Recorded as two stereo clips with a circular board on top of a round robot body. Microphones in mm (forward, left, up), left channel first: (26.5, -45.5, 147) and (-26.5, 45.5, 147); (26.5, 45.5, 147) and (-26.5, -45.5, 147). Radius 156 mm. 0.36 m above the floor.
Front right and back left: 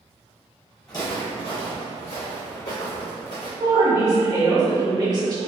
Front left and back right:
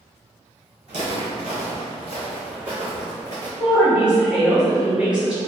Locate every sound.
0.9 s footsteps: 115° right, 1.3 m; by 3.5 s 65° right, 1.8 m
3.6 s a woman speaking: 160° left, 1.7 m